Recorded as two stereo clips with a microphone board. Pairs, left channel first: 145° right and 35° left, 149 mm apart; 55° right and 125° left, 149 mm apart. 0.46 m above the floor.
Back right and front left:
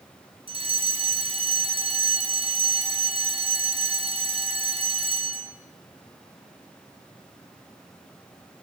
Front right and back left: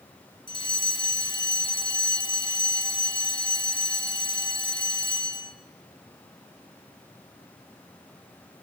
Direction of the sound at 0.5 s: 5° right.